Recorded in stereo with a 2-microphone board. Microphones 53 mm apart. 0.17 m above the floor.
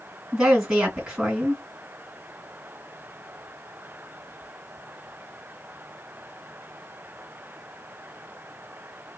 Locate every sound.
0.3 s a woman speaking: 10° right (ahead or behind), 2 m